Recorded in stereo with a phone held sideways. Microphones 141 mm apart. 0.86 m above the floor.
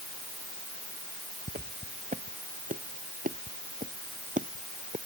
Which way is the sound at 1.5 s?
75° right (ahead or behind).